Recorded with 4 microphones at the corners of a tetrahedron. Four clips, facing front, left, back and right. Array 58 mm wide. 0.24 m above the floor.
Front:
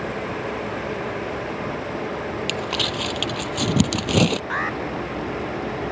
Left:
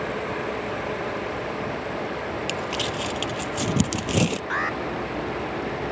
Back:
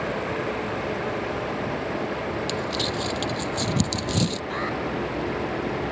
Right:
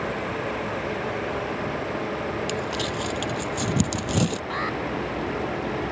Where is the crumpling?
15° left.